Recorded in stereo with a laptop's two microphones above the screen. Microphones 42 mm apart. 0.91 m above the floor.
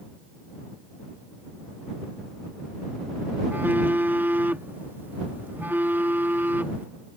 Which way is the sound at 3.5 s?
55° right (ahead or behind).